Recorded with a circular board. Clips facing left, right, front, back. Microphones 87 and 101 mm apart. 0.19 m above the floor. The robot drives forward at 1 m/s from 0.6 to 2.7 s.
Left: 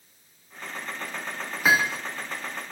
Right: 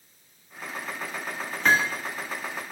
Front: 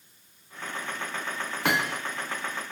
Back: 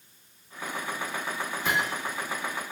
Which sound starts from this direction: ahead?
Hammering, at 1.6 s.